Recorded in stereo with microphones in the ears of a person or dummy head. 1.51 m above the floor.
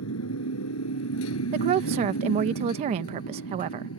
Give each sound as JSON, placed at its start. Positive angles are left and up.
{"t": 0.0, "sound": "a motorcycle", "side_deg": 80}
{"t": 1.5, "sound": "a woman speaking", "side_deg": -35}